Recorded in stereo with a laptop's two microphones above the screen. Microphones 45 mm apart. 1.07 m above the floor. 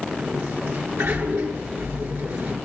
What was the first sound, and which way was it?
A sliding door, 85° right.